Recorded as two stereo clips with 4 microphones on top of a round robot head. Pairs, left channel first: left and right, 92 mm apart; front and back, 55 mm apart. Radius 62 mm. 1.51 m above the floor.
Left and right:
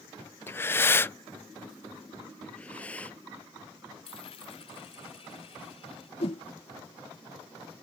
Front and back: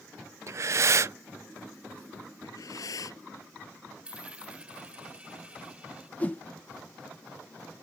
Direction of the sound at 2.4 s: 10° left.